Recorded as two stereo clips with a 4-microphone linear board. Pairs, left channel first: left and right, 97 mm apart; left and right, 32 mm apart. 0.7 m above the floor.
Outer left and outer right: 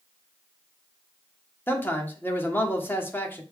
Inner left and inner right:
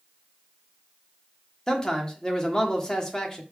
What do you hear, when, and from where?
1.7 s a man speaking: 20° left (ahead or behind), 1.7 m